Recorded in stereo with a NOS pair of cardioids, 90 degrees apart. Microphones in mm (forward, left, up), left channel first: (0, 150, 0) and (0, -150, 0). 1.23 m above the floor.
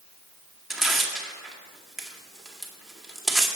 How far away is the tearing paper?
About 1.8 m.